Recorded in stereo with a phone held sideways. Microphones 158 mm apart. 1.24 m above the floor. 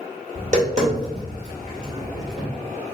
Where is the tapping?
50° right (ahead or behind), 2 m.